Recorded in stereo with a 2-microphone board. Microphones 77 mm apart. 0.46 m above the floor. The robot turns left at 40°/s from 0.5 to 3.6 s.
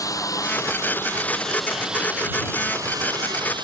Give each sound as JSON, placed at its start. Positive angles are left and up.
{"t": 0.0, "sound": "a lawn mower", "azimuth_deg": 45}